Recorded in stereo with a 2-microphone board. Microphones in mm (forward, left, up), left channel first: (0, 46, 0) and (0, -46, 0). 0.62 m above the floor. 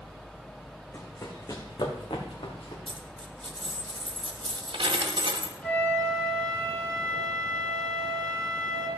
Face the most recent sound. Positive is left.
turn(degrees=15)  # may be behind; listen again after turning